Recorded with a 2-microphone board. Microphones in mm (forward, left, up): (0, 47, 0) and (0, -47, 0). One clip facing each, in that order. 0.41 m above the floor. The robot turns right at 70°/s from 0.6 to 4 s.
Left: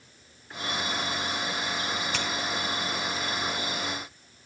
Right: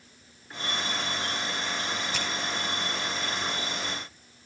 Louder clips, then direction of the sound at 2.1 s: Left 1 dB; 65° left (ahead or behind).